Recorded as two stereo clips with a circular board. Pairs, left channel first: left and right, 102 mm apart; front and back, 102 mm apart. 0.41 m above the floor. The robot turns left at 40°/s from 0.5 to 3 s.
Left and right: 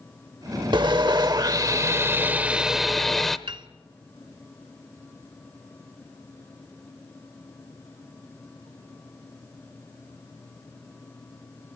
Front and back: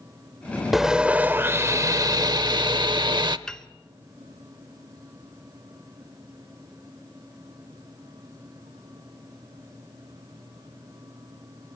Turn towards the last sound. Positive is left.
turn(degrees=-80)